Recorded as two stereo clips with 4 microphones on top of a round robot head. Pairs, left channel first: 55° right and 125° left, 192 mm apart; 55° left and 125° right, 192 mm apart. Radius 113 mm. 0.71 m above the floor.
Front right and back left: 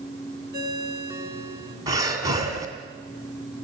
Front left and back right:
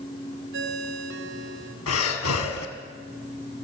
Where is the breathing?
55° left, 2.5 m.